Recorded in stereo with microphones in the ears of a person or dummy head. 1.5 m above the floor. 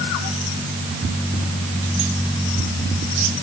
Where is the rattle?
No rattle in this recording.